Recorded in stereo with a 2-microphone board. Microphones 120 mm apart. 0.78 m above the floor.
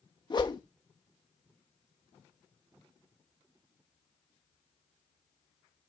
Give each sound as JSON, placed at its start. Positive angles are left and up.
{"t": 0.3, "sound": "a whoosh", "side_deg": 40, "distance_m": 1.0}